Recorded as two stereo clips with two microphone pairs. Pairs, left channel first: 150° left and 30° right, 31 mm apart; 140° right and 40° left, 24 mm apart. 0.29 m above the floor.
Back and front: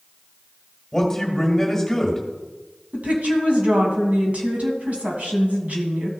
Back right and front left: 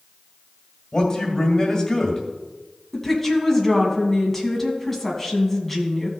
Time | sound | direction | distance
0.9 | a man speaking | 145° right | 1.8 m
2.9 | a woman speaking | 60° right | 2 m